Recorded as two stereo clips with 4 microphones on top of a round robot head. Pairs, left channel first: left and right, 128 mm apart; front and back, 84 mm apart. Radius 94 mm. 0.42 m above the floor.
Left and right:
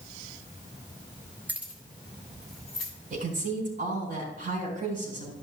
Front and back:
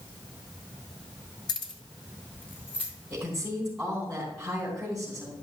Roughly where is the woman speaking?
Right.